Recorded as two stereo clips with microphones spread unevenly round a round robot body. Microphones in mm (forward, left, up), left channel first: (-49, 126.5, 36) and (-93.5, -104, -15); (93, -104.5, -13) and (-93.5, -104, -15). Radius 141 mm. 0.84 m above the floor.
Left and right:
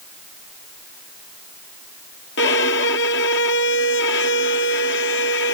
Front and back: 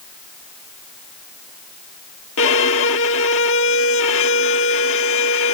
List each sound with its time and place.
2.4 s a violin: 25° left